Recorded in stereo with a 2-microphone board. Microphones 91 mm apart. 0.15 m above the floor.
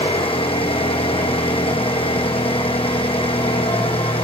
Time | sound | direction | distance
0.0 | an engine running | 75° left (ahead or behind) | 1.8 m